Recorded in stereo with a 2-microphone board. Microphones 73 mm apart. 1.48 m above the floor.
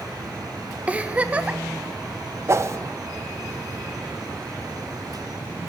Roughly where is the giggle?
Centre.